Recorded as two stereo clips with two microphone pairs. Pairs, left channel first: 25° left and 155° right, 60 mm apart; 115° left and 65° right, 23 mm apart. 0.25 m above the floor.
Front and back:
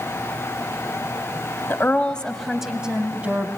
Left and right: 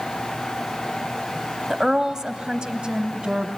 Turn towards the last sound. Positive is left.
turn(degrees=-100)